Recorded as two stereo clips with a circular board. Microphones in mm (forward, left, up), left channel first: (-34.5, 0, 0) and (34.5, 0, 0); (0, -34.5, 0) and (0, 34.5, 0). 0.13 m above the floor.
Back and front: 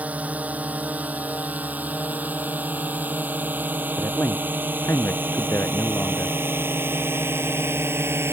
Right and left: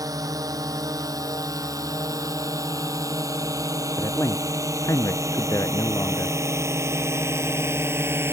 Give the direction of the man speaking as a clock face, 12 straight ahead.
4 o'clock.